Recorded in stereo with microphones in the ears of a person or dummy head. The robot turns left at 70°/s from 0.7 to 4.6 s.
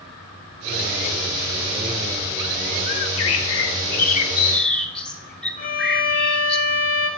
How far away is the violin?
About 1.7 m.